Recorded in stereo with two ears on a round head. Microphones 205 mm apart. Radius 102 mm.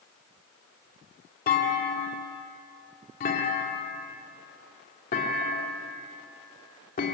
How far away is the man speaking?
I don't hear a man speaking.